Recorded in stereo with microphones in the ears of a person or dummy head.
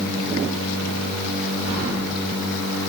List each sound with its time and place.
1.6 s keys jangling: 50° right (ahead or behind), 1.1 m